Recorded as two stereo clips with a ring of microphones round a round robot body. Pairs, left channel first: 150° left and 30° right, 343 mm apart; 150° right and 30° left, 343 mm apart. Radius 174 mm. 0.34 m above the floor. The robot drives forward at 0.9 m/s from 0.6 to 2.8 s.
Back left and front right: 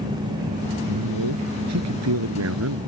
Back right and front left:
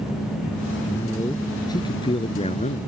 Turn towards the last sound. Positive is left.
turn(degrees=-80)